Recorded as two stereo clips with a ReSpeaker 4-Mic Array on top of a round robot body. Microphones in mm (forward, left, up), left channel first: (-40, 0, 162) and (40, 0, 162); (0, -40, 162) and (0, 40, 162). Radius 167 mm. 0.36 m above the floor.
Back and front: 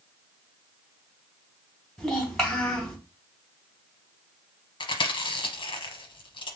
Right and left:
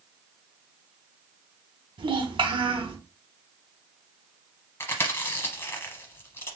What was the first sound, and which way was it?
A child speaking, 95° left.